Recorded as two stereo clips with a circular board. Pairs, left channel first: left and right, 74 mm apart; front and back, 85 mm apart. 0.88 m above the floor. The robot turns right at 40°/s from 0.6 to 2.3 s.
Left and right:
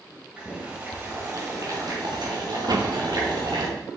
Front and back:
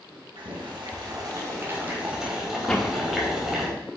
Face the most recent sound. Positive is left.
turn(degrees=-85)